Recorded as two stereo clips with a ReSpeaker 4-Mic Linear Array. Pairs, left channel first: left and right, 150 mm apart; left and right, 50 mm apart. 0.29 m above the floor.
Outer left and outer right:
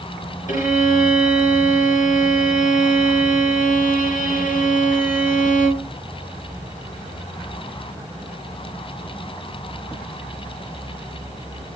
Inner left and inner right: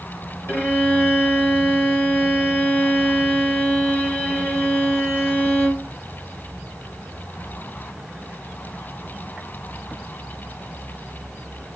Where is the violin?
60° left (ahead or behind), 4 m.